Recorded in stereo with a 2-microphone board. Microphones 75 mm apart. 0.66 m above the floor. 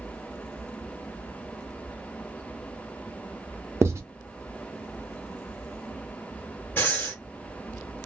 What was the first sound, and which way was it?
Writing, 35° right (ahead or behind).